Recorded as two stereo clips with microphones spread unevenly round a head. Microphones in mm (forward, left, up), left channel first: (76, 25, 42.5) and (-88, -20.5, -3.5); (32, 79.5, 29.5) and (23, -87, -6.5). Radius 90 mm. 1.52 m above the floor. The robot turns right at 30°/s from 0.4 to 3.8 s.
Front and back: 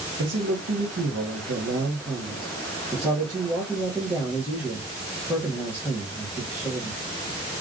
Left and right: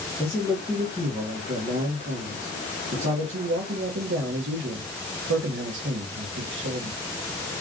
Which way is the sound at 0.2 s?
175° left.